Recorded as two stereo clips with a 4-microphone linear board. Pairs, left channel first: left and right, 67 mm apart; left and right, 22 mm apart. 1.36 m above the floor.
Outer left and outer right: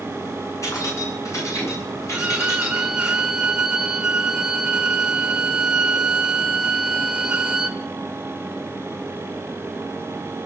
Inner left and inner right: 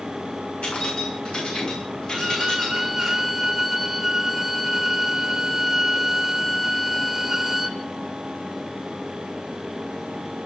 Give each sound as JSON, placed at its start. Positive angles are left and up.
{"t": 0.6, "sound": "keys jangling", "side_deg": 50, "distance_m": 9.5}
{"t": 2.1, "sound": "a violin", "side_deg": -15, "distance_m": 1.5}